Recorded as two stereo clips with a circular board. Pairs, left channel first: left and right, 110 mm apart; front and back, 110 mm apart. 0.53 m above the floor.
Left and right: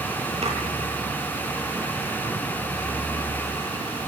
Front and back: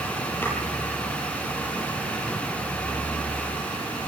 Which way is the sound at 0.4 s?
70° right.